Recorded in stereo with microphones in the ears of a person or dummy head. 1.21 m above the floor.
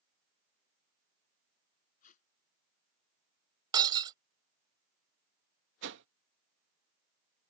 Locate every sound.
2.0 s tape being pulled: 45° left (ahead or behind)
3.7 s breaking glass: 25° right (ahead or behind)
5.8 s a whoosh: 70° right (ahead or behind)